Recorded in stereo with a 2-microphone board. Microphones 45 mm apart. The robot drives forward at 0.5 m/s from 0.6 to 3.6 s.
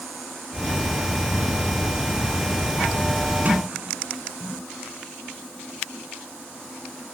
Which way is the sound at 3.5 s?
35° right (ahead or behind).